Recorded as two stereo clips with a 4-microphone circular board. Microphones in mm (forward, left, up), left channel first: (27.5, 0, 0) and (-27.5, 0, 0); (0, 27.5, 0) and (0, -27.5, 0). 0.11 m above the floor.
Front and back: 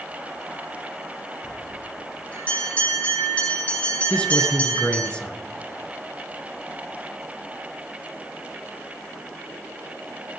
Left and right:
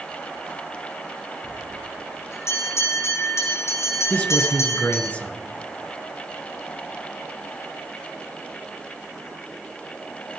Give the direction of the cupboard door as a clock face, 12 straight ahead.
I don't hear a cupboard door.